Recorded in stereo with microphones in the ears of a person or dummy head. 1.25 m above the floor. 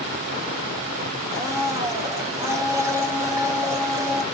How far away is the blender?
About 0.7 m.